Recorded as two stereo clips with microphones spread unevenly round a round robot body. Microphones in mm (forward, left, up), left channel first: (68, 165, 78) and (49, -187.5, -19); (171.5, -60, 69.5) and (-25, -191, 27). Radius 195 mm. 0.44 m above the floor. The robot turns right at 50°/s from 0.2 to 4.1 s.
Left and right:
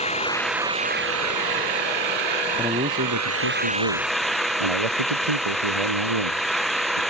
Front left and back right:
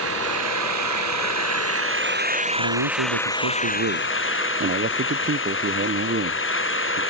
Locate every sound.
0.0 s an engine running: 160° left; by 7.1 s 5° right
2.6 s a man speaking: straight behind; by 7.0 s 100° right